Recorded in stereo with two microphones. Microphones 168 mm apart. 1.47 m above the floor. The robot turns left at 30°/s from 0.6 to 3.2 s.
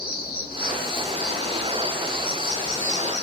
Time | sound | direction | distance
0.0 | an insect | 120° left | 0.9 m